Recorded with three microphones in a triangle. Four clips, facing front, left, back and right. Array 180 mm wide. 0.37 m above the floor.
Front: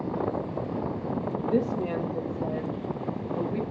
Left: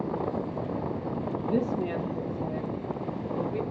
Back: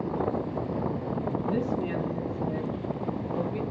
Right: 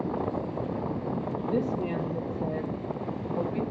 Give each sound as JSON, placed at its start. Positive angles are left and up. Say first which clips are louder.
{"t": 1.4, "sound": "a woman speaking", "louder": "left 1 dB, front 5 dB", "azimuth_deg": 15, "distance_m": 1.6}